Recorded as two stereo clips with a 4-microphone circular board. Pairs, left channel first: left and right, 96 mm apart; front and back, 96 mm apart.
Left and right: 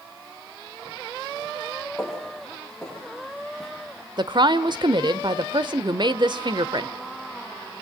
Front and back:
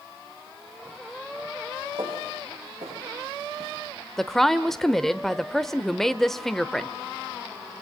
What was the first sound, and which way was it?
Footsteps, 175° left.